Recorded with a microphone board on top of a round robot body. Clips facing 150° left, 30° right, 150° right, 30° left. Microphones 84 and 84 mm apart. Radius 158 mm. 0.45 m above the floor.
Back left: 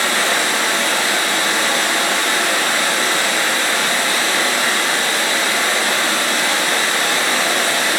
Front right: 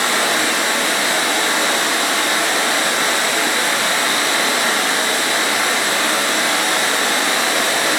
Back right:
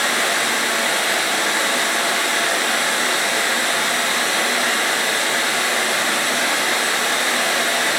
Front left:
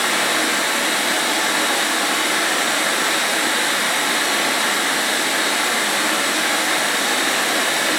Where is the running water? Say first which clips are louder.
Even, even; 30° left, 6 m.